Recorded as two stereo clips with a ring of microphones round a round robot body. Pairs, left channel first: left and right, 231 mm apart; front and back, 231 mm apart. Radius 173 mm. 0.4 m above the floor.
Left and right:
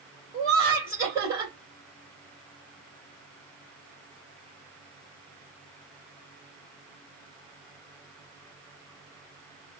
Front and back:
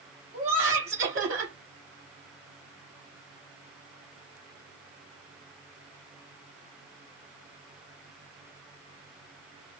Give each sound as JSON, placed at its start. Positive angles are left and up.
{"t": 0.3, "sound": "laughter", "azimuth_deg": -170, "distance_m": 2.5}